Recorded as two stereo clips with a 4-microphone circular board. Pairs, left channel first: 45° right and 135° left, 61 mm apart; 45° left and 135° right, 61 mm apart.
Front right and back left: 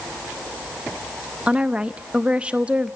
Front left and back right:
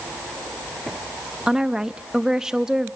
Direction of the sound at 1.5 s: 160° left.